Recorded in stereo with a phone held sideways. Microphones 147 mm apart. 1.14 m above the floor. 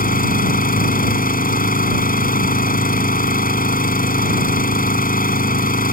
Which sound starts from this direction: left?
An engine running, at 0.0 s.